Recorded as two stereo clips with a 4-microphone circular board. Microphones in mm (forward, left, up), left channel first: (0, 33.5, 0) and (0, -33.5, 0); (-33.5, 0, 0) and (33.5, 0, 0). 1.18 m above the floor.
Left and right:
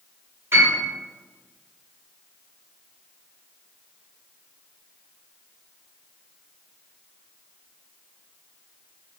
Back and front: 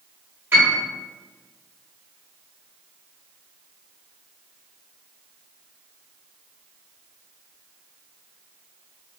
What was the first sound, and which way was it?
A piano, 50° right.